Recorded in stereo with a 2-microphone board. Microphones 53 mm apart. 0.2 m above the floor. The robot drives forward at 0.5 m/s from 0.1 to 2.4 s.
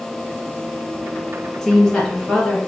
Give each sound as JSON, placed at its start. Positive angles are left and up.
{"t": 1.6, "sound": "a woman speaking", "side_deg": 10, "distance_m": 1.5}